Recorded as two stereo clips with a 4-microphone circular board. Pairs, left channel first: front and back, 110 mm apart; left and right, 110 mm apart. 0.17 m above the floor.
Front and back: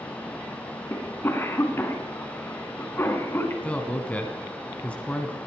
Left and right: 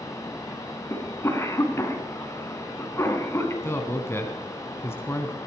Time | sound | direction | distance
0.9 | a cough | 50° left | 2.0 m
3.6 | a man speaking | 65° left | 1.0 m